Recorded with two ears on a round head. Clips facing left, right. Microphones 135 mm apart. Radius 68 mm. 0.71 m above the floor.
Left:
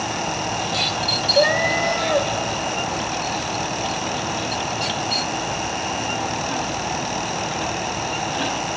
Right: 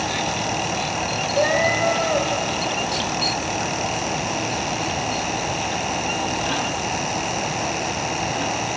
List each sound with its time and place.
1.3 s a cat meowing: 55° left (ahead or behind), 2 m